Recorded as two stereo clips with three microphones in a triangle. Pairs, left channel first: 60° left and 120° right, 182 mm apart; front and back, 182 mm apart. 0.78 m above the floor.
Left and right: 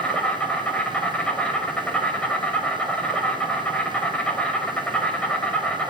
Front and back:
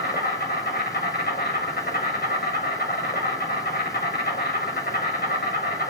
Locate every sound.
0.0 s an insect: 25° right, 2.5 m